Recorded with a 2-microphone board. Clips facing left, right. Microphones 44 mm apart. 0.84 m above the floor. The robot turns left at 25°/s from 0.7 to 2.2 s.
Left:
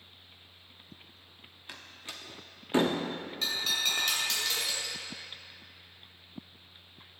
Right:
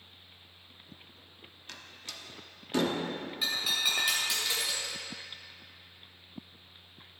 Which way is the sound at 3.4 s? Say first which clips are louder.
Even; 10° right (ahead or behind).